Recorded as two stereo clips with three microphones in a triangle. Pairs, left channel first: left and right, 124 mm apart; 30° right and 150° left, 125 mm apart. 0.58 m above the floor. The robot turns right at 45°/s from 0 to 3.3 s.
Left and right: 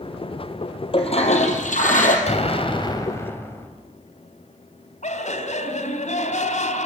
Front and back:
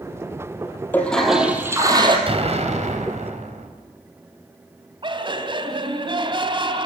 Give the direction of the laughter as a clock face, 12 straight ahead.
9 o'clock.